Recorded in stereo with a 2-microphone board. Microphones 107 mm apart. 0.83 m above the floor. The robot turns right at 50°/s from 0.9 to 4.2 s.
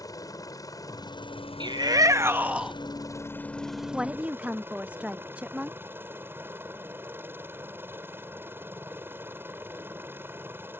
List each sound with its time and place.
0.0 s a helicopter: 35° left; by 10.8 s 160° right
1.6 s a shout: 60° right; by 2.7 s 5° right
3.9 s a woman speaking: 5° right (ahead or behind); by 5.8 s 10° right (ahead or behind)